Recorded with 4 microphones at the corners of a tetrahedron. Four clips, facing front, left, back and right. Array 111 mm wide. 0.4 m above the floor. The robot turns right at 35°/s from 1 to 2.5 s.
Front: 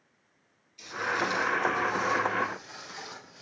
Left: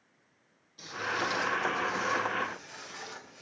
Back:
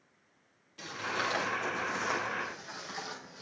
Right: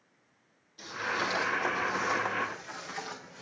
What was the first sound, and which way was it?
Footsteps, straight behind.